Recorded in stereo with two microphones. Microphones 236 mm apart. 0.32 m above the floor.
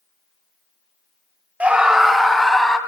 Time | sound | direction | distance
1.6 | a scream | 5° right (ahead or behind) | 1.0 m